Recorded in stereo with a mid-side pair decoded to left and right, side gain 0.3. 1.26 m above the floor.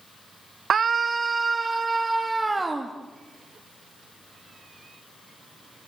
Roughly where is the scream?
Right.